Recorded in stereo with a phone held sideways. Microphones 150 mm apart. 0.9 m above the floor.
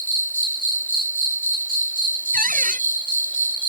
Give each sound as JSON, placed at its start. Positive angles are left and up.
{"t": 0.0, "sound": "an insect", "side_deg": -65}
{"t": 2.3, "sound": "a cupboard door", "side_deg": -65}